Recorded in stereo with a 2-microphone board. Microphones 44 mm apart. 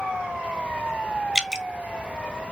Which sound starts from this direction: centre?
Dripping, at 1.4 s.